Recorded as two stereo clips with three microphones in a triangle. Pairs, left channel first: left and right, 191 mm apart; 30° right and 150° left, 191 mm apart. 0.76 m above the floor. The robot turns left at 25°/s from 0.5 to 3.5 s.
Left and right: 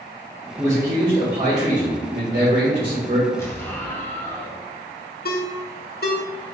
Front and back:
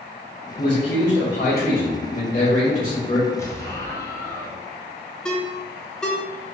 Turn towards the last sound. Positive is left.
turn(degrees=55)